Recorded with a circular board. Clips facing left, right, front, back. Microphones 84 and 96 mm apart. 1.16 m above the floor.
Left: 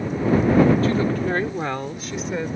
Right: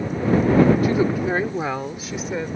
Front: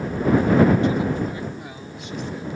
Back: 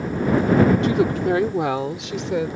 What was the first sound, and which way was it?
A woman speaking, 165° right.